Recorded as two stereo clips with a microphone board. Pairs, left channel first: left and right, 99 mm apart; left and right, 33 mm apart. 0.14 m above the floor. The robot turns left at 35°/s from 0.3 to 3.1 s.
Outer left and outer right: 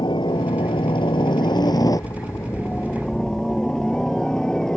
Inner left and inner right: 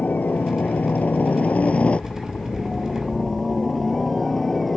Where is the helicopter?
105° left; by 4.8 s 10° left.